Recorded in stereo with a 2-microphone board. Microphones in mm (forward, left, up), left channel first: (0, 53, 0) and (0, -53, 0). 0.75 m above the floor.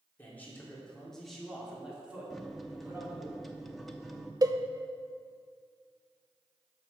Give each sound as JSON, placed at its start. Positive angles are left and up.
{"t": 0.2, "sound": "a man speaking", "side_deg": 20, "distance_m": 2.0}
{"t": 2.3, "sound": "a microwave", "side_deg": 0, "distance_m": 0.6}
{"t": 4.4, "sound": "a cowbell", "side_deg": -35, "distance_m": 0.5}